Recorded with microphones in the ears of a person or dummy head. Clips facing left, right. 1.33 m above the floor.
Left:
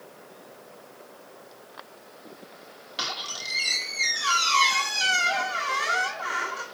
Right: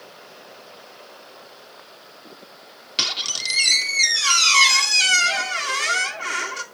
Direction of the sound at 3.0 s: 40° right (ahead or behind).